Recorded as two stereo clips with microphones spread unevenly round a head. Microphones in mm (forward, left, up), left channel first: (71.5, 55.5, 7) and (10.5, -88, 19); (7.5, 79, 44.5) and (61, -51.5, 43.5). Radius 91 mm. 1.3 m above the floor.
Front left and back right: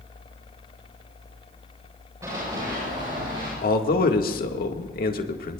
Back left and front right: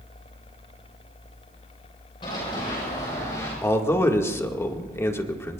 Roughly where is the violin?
I don't hear a violin.